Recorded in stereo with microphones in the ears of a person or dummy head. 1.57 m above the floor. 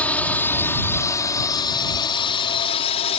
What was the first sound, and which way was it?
A drone, 10° left (ahead or behind).